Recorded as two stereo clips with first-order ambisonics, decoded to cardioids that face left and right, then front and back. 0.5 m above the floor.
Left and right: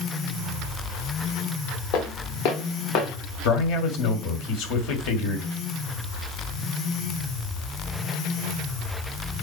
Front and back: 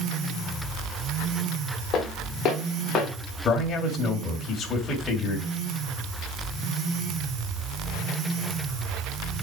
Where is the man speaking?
65° left, 2 m.